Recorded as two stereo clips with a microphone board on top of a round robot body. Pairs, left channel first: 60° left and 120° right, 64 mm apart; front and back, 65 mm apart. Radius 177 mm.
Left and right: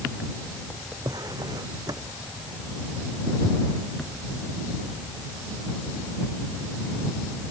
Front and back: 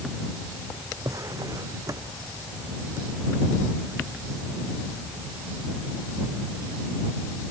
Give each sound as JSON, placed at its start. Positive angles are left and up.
{"t": 1.1, "sound": "a drawer", "azimuth_deg": -145}